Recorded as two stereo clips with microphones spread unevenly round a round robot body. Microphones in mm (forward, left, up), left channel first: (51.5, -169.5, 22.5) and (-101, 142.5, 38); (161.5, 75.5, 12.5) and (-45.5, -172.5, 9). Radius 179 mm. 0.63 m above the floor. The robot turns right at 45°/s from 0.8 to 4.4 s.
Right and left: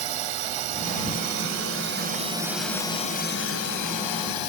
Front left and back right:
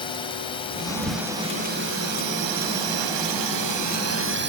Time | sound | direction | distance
0.0 | a drone | 125° left | ?